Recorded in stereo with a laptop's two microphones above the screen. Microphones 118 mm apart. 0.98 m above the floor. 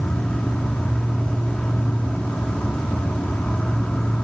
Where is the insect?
10° left (ahead or behind), 0.8 m.